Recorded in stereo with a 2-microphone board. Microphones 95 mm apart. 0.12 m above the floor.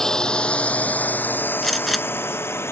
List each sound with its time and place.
0.0 s a drone: 5° left (ahead or behind); by 2.7 s 25° left (ahead or behind)
1.6 s a gunshot: centre (ahead or behind)